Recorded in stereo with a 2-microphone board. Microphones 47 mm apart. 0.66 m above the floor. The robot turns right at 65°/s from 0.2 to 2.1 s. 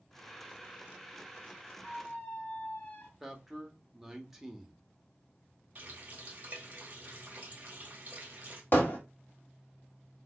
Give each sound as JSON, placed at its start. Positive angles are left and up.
{"t": 1.8, "sound": "a squeak", "side_deg": 25, "distance_m": 1.3}
{"t": 3.2, "sound": "a man speaking", "side_deg": -5, "distance_m": 0.8}
{"t": 5.8, "sound": "a running tap", "side_deg": -40, "distance_m": 0.9}
{"t": 8.7, "sound": "hammering", "side_deg": 55, "distance_m": 1.3}